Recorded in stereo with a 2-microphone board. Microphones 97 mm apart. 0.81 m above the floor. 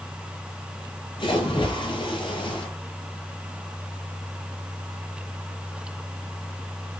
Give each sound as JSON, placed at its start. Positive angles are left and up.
{"t": 1.2, "sound": "a splash", "side_deg": 55, "distance_m": 6.0}